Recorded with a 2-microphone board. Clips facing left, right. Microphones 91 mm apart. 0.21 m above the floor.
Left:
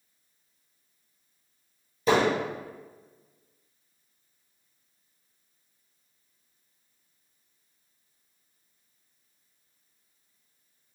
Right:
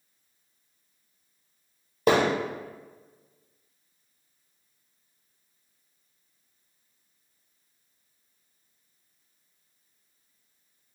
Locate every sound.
2.1 s hammering: 60° right (ahead or behind), 1.2 m